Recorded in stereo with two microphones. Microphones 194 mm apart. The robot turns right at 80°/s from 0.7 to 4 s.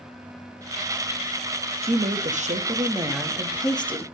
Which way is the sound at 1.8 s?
125° right.